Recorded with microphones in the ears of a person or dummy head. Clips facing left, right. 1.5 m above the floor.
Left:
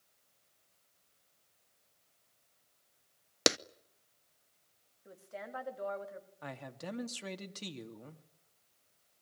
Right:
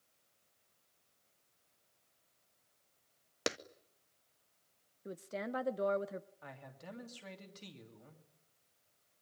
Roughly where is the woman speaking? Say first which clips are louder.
Right 5 dB; right.